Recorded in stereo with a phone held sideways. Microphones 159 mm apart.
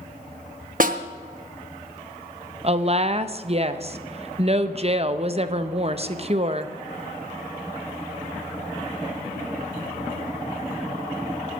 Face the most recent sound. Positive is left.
turn(degrees=-40)  # may be behind; listen again after turning